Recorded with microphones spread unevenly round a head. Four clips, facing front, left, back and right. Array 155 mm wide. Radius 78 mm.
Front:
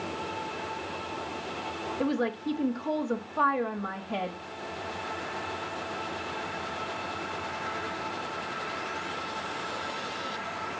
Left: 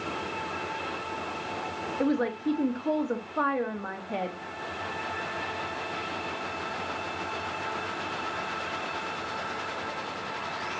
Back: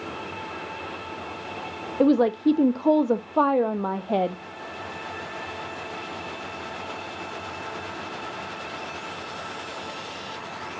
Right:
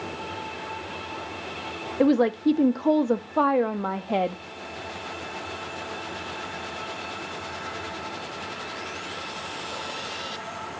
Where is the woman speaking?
155° right, 0.6 m.